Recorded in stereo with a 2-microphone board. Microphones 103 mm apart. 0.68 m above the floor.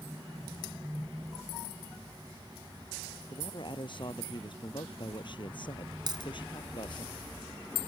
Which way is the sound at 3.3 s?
50° left (ahead or behind).